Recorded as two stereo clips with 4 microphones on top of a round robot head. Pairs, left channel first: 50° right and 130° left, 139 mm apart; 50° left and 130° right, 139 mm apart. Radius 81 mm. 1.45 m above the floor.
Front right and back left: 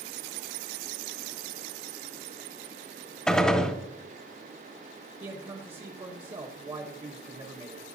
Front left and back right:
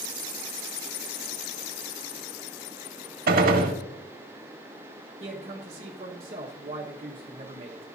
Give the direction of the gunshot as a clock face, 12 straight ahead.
4 o'clock.